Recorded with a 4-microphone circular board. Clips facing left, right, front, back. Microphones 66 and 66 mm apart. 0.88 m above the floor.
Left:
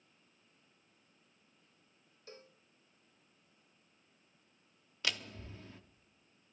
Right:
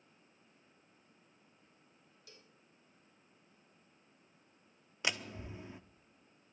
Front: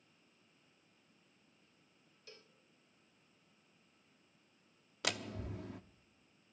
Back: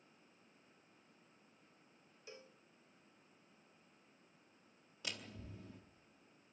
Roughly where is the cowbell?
Behind left.